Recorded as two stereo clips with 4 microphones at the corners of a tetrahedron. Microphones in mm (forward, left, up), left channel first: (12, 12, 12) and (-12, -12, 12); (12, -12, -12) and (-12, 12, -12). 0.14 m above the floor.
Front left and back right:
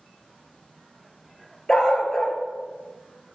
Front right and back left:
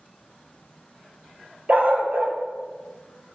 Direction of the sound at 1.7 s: 115° left.